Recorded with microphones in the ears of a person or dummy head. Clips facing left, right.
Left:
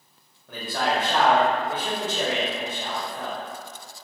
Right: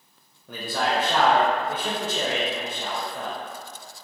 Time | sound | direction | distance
0.5 | a man speaking | 80° right | 0.6 m